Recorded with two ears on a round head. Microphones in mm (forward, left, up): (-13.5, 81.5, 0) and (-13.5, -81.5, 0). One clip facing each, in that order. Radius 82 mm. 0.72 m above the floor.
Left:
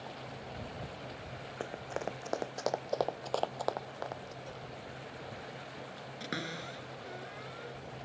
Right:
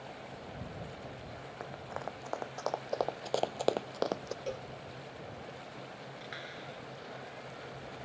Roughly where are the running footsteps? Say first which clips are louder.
Left 4 dB; left.